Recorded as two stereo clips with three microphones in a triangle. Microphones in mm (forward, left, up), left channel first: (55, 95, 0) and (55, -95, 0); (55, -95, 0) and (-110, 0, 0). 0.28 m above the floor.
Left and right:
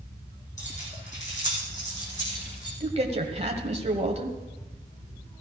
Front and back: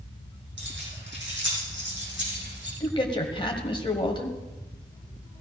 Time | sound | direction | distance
0.6 | keys jangling | 140° left | 8 m
2.8 | a man speaking | 70° right | 1.6 m